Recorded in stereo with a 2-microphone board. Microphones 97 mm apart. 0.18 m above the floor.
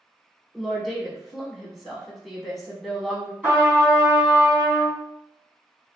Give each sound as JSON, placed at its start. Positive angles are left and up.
{"t": 0.5, "sound": "a woman speaking", "side_deg": 0, "distance_m": 1.0}
{"t": 3.4, "sound": "a trumpet", "side_deg": -15, "distance_m": 1.9}